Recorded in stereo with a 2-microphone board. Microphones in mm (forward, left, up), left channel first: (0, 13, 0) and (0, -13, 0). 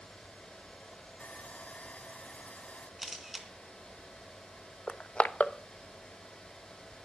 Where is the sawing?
80° left, 3 m.